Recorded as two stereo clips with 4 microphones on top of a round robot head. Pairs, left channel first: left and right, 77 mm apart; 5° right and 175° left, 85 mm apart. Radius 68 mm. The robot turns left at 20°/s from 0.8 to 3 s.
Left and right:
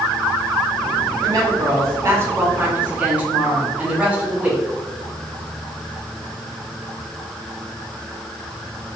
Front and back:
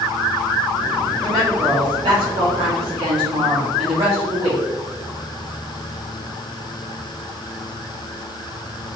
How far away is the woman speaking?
About 1.9 m.